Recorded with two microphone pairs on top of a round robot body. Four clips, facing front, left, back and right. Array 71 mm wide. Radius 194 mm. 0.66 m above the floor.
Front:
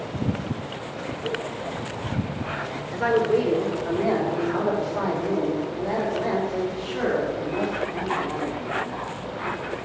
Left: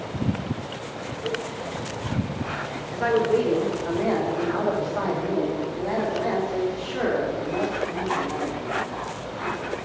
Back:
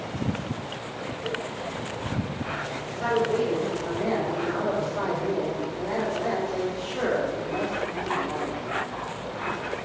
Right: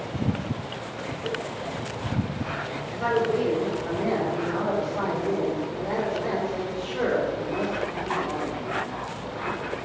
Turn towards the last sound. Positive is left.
turn(degrees=85)